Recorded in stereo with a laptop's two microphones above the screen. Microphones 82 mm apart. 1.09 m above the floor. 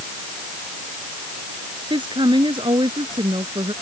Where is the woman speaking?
75° right (ahead or behind).